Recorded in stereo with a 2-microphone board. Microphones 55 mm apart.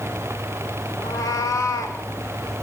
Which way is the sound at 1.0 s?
80° left.